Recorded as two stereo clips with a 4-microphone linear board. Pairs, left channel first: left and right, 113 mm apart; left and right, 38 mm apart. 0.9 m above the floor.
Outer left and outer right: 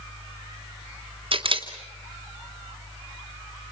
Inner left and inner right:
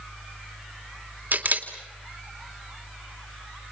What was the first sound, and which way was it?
A camera shutter, 50° right (ahead or behind).